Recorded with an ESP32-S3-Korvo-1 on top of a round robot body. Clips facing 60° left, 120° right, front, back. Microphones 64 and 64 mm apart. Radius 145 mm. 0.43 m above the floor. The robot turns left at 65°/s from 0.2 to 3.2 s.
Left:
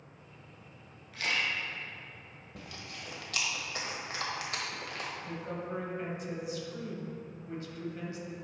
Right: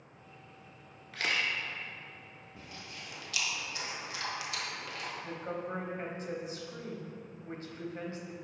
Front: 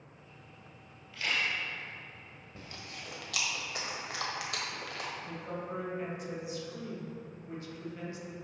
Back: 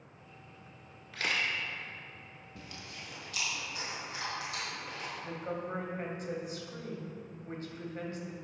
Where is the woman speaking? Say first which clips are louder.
Even, back 2 dB; 150° right, 1.8 m.